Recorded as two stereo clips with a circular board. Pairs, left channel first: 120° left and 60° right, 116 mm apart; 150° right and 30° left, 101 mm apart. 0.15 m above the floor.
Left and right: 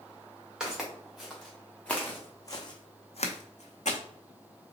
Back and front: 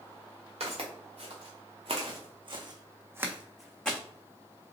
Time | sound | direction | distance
0.6 | footsteps | 25° left | 1.4 m